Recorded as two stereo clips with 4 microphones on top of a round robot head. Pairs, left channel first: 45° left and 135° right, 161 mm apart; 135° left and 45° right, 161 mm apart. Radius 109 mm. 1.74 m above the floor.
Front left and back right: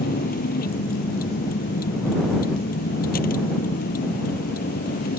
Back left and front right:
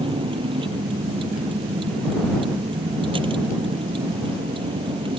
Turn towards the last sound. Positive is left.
turn(degrees=15)